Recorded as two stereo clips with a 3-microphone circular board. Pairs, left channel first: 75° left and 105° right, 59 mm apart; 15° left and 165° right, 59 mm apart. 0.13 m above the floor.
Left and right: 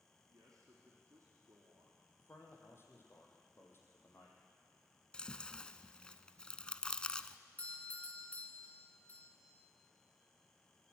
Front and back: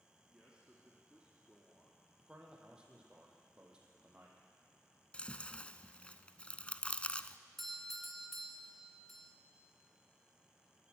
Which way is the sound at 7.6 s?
95° left.